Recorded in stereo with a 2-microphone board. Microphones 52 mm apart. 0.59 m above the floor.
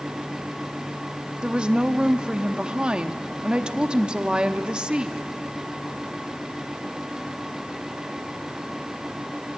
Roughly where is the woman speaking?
Centre.